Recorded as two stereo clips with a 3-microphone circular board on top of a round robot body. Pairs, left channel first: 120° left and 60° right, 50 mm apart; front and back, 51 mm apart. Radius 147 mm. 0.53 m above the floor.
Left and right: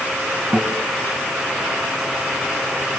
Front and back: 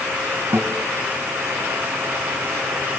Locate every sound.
0.5 s a guitar: 135° right, 3 m